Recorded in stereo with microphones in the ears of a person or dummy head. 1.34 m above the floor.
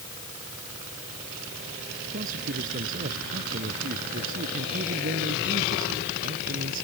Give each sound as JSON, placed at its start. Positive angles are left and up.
{"t": 2.1, "sound": "a man speaking", "side_deg": -40}